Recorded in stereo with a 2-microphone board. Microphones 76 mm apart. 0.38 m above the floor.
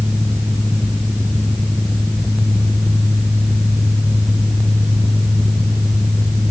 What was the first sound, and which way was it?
Only background noise.